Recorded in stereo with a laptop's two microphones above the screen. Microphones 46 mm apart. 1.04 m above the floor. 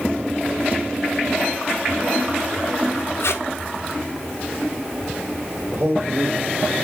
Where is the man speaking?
65° right (ahead or behind), 2.5 m.